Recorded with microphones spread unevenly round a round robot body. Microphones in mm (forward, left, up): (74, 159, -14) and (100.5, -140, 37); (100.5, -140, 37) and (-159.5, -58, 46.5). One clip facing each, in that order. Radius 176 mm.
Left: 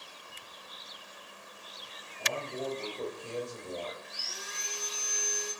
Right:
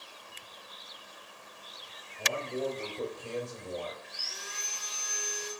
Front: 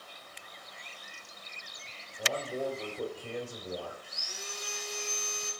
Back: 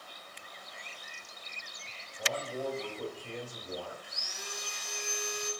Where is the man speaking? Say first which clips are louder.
Right 3 dB, front 2 dB; 80° right, 2.5 m; by 3.9 s 55° right, 2.5 m.